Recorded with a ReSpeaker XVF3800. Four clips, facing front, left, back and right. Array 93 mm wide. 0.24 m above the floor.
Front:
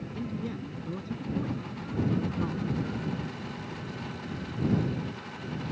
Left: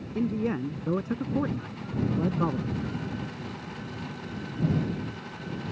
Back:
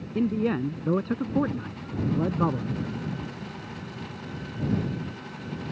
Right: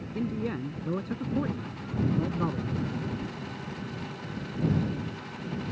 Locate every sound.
0.1 s a man speaking: 160° left